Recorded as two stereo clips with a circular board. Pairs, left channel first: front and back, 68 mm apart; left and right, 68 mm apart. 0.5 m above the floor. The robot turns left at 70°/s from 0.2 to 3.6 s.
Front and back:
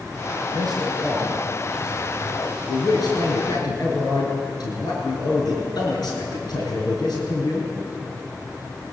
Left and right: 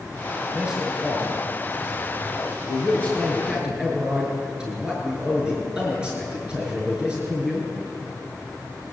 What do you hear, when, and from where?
0.5 s a man speaking: 160° right, 6.5 m; by 7.7 s 15° right, 6.5 m